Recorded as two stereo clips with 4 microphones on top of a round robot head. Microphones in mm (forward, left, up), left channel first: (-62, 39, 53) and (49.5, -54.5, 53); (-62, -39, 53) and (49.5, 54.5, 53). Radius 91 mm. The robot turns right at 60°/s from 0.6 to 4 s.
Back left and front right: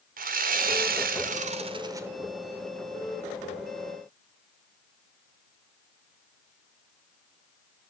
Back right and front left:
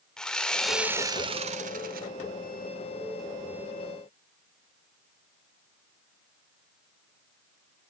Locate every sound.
0.2 s sawing: 55° right, 1.5 m; by 2.1 s 35° left, 1.5 m